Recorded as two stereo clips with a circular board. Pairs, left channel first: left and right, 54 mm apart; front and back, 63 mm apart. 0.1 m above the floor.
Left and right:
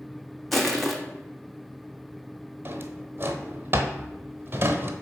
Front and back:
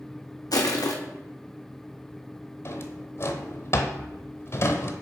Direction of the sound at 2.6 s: 40° right.